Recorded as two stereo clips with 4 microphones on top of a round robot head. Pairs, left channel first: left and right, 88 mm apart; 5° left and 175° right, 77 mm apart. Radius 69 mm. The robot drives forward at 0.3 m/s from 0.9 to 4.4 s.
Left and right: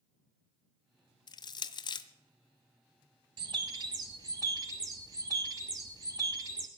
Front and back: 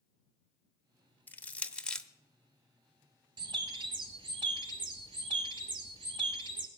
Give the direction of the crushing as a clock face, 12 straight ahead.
10 o'clock.